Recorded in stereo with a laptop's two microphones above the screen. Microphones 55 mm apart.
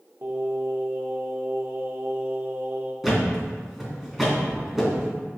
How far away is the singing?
About 1.0 m.